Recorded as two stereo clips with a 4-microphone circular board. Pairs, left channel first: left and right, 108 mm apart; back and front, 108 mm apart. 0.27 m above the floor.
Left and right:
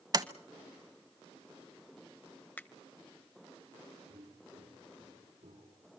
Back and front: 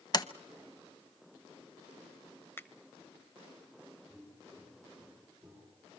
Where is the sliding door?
135° right, 0.8 m.